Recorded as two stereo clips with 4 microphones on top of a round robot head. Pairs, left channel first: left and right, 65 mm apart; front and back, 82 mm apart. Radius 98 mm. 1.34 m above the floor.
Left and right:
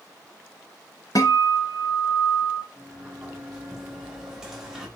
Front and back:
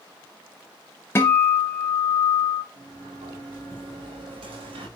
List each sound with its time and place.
1.1 s a guitar: 40° left, 0.5 m
2.7 s a sliding door: 170° right, 3.5 m